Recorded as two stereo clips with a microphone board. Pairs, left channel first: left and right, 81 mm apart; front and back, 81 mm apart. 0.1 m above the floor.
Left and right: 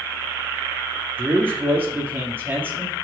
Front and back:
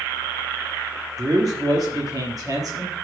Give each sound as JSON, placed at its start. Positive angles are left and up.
{"t": 1.2, "sound": "a man speaking", "azimuth_deg": -150, "distance_m": 2.5}